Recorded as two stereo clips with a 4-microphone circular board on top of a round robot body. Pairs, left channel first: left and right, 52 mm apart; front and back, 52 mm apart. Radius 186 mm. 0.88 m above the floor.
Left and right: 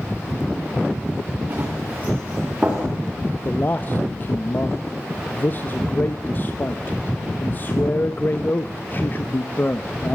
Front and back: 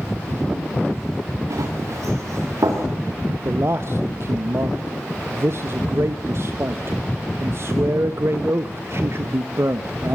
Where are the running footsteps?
145° right, 6.5 m; by 2.8 s 160° right, 7 m.